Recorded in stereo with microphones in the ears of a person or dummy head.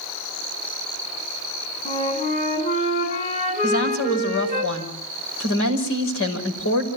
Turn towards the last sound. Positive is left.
turn(degrees=70)  # may be behind; listen again after turning